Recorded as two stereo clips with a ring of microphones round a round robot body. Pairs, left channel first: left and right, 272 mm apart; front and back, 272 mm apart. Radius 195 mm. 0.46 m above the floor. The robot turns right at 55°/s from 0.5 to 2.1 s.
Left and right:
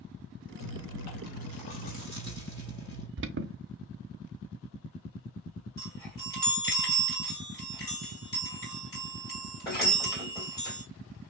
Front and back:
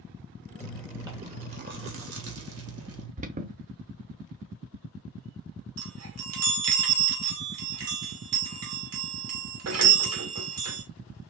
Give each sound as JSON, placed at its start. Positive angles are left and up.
{"t": 0.6, "sound": "chewing", "azimuth_deg": 80, "distance_m": 2.5}
{"t": 3.2, "sound": "an alarm", "azimuth_deg": -125, "distance_m": 0.6}
{"t": 5.8, "sound": "a chime", "azimuth_deg": 170, "distance_m": 2.5}